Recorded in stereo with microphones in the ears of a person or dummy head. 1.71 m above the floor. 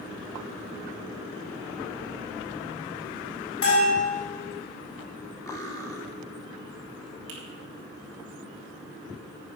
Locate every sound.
3.6 s a bell: 60° left (ahead or behind), 6.5 m
5.5 s cutlery clinking: 20° left (ahead or behind), 2.5 m
7.3 s a finger snap: 80° right, 3.5 m